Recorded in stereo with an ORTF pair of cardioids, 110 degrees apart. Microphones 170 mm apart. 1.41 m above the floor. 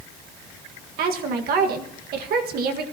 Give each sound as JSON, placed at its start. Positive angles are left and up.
{"t": 1.0, "sound": "a woman speaking", "azimuth_deg": -70, "distance_m": 1.7}